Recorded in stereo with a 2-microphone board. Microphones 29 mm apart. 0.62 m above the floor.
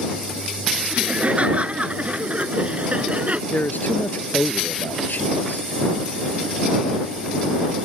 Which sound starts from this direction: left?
A man speaking, at 3.5 s.